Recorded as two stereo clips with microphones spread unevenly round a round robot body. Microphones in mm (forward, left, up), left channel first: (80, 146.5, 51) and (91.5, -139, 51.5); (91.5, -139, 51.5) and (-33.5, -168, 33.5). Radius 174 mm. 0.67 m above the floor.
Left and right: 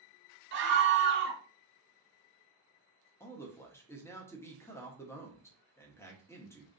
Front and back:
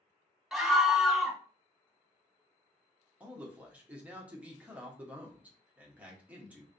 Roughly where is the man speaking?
Behind.